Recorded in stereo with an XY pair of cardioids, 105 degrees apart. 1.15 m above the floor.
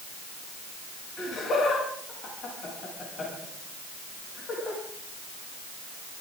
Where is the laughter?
55° left, 8.5 m.